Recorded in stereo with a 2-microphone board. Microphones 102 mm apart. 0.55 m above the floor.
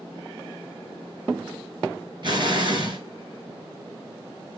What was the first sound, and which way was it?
An explosion, 50° right (ahead or behind).